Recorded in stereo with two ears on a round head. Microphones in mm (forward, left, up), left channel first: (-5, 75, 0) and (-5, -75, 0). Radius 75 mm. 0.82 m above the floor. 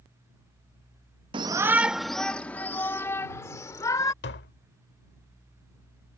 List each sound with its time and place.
1.3 s a shout: 30° right (ahead or behind); by 4.1 s 20° left (ahead or behind)
4.2 s tapping: 70° left (ahead or behind)